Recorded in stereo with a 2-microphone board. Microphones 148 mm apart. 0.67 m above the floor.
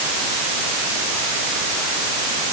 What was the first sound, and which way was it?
Only background noise.